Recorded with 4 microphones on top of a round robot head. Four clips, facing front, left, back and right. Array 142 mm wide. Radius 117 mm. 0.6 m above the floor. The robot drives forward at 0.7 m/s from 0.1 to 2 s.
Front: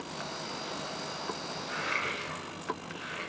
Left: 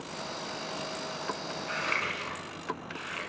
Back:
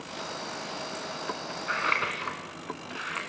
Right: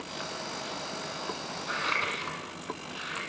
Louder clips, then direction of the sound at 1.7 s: Right 2 dB, back 6 dB; 165° right.